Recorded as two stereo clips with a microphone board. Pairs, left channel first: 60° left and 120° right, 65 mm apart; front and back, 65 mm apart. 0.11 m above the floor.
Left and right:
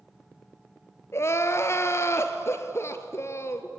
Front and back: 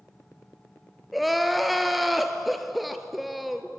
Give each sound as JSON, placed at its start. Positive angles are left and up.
{"t": 1.1, "sound": "crying", "azimuth_deg": 90, "distance_m": 1.2}